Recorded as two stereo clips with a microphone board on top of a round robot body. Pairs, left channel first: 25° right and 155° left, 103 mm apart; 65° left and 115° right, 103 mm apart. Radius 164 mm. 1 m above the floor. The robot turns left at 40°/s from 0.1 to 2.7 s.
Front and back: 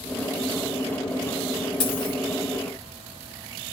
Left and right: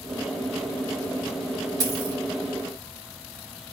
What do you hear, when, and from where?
1.8 s a dropped coin: 55° right, 1.7 m; by 2.2 s 70° right, 1.7 m